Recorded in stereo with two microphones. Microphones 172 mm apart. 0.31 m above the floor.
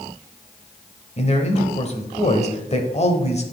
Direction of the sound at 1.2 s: 40° left (ahead or behind).